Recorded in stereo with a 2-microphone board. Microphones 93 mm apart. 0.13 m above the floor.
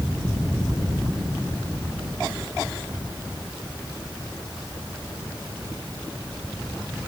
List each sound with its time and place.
Only background noise.